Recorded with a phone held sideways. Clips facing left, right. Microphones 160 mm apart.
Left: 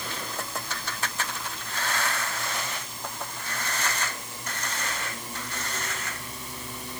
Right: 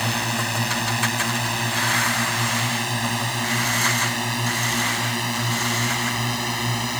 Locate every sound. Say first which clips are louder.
0.0 s a drone: right 9 dB; 80° right